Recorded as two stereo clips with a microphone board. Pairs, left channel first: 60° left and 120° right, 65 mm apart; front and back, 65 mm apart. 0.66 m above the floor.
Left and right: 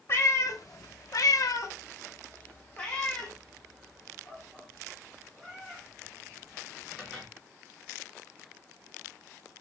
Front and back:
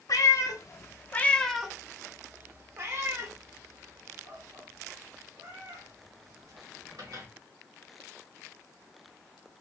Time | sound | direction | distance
0.1 | a cat meowing | 20° left | 0.8 m